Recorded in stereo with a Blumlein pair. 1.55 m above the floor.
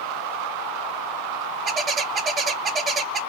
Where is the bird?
20° right, 0.6 m.